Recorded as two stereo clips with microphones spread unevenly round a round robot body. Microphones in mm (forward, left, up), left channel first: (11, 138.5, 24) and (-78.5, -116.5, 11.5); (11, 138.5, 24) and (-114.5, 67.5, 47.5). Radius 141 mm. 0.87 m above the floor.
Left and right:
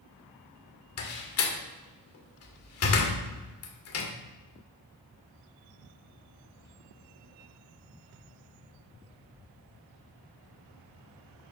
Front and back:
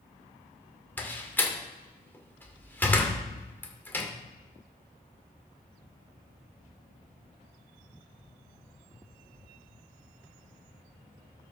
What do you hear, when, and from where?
1.0 s a door slam: 105° left, 2 m